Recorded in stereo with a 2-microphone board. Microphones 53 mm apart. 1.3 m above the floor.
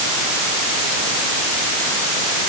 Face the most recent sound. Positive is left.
No sound to turn to.